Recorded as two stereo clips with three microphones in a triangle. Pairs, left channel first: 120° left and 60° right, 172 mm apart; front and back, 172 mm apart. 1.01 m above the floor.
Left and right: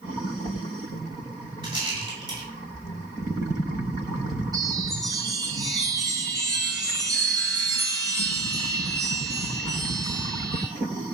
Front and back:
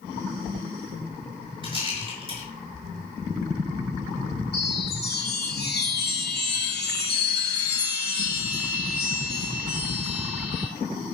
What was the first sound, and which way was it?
A rattle, 120° right.